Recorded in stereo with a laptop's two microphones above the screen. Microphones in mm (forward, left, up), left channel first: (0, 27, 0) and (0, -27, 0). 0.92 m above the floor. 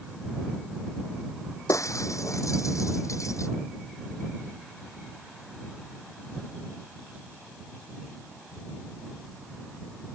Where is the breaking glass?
80° left.